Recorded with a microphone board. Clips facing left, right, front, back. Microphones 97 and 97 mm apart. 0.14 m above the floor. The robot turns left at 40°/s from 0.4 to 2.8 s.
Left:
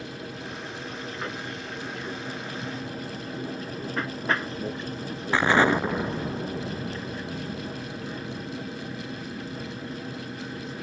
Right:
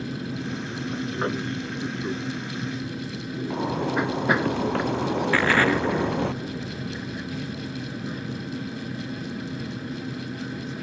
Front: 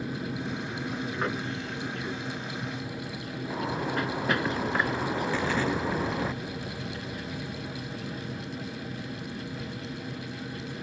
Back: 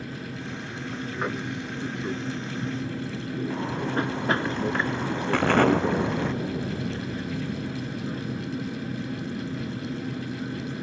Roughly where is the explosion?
Behind.